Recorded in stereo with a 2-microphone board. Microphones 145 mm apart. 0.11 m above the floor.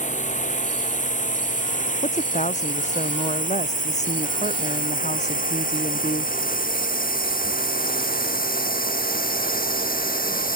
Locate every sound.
0.0 s a drone: 55° left (ahead or behind); by 10.6 s 75° left (ahead or behind)
2.0 s a woman speaking: 55° left (ahead or behind)